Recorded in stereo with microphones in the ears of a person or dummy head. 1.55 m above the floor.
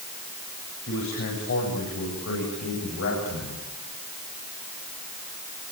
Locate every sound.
0.9 s a man speaking: 60° left (ahead or behind), 8.5 m; by 3.6 s 80° left, 9 m